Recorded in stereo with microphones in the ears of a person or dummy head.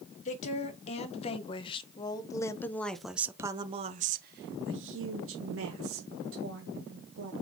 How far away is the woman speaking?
About 1.9 m.